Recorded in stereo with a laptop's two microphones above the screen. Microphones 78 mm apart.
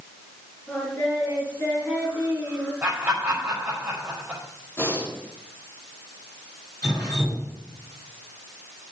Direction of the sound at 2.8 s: 15° right (ahead or behind).